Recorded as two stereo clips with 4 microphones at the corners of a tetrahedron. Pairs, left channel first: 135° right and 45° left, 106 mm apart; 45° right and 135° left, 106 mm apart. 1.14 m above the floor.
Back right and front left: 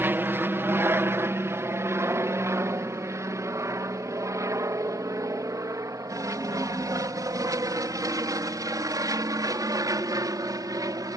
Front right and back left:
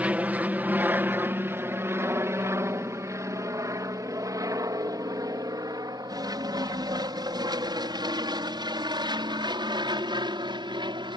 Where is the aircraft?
80° left; by 11.2 s 95° left.